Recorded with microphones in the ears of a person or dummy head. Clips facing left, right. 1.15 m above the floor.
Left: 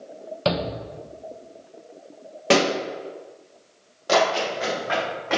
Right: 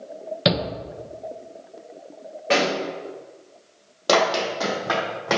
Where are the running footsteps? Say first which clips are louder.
Right 1 dB; 55° right (ahead or behind), 2 m; by 5.4 s 65° right (ahead or behind), 3 m.